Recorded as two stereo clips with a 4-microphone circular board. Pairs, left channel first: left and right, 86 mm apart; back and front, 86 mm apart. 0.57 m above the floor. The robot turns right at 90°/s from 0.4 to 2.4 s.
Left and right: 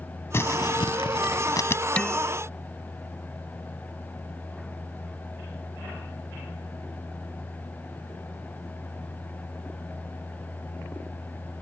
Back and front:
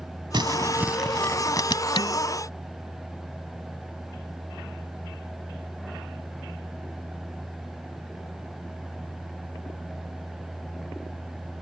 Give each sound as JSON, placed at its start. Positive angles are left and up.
{"t": 0.3, "sound": "crumpling", "azimuth_deg": 30}
{"t": 2.0, "sound": "dishes clattering", "azimuth_deg": 160}